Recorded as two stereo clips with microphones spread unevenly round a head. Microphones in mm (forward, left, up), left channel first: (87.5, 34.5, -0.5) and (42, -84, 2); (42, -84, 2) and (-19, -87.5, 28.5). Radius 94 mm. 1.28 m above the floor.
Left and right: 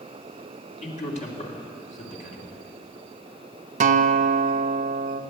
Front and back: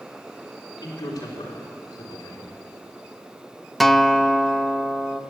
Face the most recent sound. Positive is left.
turn(degrees=-95)